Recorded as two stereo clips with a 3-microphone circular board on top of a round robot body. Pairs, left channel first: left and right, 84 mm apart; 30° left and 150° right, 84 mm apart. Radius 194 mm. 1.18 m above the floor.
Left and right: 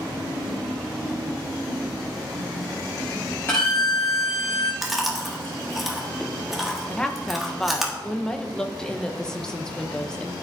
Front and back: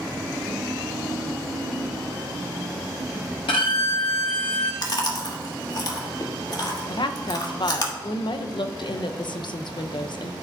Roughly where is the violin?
Ahead left.